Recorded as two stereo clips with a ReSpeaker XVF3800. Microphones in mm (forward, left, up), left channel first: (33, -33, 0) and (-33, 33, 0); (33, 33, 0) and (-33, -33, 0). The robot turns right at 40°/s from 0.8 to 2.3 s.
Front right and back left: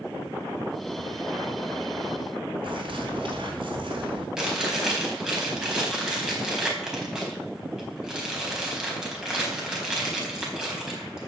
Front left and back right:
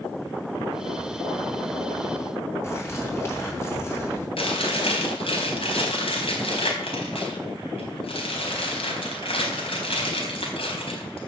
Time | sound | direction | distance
2.6 | a bird | 105° left | 4 m
4.4 | chewing | 50° left | 4 m